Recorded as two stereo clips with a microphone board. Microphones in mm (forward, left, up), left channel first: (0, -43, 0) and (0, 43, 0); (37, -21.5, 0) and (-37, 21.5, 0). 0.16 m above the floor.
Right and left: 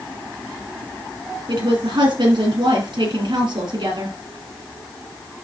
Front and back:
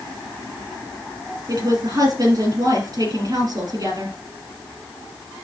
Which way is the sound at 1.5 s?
110° left.